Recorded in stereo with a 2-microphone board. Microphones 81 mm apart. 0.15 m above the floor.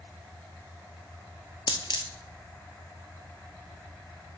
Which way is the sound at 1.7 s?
75° left (ahead or behind).